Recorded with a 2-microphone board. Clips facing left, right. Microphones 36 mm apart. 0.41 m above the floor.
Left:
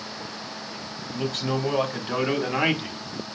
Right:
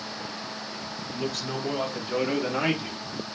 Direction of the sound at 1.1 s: 60° left (ahead or behind).